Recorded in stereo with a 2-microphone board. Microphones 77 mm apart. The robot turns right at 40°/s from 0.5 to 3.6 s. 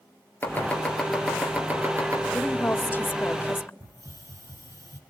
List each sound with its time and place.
0.4 s chopping: 25° left (ahead or behind), 4 m; by 2.2 s 45° right (ahead or behind), 4 m
2.3 s a woman speaking: 15° left (ahead or behind), 1.0 m; by 3.7 s 30° left (ahead or behind), 1.0 m
3.8 s a hiss: 45° right (ahead or behind), 2.5 m